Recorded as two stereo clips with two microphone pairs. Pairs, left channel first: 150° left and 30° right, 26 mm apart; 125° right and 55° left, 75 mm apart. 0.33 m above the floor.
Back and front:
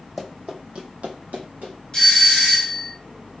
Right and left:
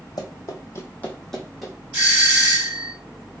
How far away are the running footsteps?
About 0.9 m.